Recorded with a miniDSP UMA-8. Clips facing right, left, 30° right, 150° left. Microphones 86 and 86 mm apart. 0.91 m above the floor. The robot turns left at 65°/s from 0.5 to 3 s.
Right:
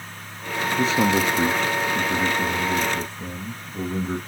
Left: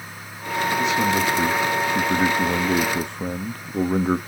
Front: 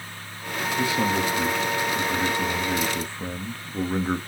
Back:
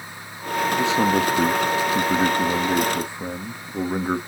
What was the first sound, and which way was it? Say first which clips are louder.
A man speaking: right 2 dB, back 3 dB; 135° right.